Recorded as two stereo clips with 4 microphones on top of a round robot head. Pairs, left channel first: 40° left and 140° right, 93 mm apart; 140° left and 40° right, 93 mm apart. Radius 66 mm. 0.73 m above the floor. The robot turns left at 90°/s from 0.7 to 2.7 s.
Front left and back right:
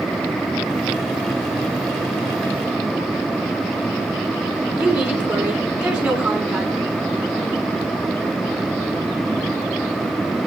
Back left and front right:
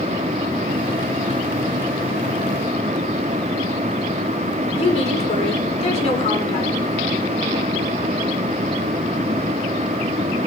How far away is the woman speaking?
About 8.5 m.